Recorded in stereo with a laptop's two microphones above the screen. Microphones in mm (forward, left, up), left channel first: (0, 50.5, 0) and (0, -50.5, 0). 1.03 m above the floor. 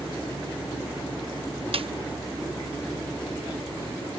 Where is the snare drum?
65° right (ahead or behind), 0.7 m.